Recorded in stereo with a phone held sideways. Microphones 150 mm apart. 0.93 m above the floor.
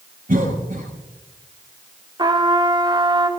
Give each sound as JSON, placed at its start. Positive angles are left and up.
{"t": 0.3, "sound": "a cough", "side_deg": -75, "distance_m": 7.0}
{"t": 2.2, "sound": "a trumpet", "side_deg": -30, "distance_m": 1.4}